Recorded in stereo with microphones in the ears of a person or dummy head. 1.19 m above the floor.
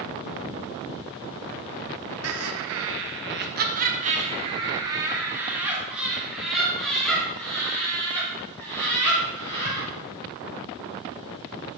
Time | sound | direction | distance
2.2 | laughter | 75° right (ahead or behind) | 1.3 m